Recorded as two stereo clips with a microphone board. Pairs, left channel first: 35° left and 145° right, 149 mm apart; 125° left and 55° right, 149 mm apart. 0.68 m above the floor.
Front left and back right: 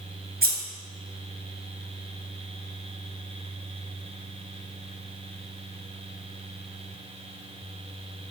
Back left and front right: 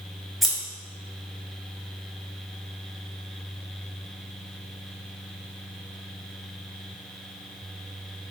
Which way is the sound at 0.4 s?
145° right.